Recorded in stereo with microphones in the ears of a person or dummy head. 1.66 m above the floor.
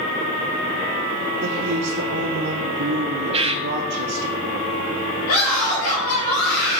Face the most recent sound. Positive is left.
turn(degrees=50)  # may be behind; listen again after turning